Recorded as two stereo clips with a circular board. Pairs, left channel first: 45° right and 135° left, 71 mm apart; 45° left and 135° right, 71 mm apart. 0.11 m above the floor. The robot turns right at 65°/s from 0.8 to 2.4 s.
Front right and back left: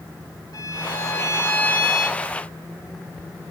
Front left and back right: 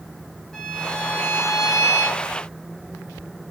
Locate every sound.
0.5 s a violin: 35° right, 3.5 m; by 2.2 s 60° left, 3.5 m